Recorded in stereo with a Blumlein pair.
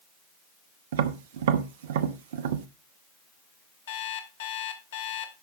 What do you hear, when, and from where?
0.9 s tapping: 55° right, 0.8 m
3.9 s an alarm clock: 55° left, 1.6 m